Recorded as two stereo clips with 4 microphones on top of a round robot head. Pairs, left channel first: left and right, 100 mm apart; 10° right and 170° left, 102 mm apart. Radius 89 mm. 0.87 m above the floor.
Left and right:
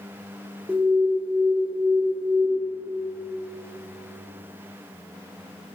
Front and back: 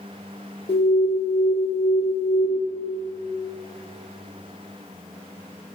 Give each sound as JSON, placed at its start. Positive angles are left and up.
{"t": 0.7, "sound": "an alarm", "azimuth_deg": -10, "distance_m": 3.0}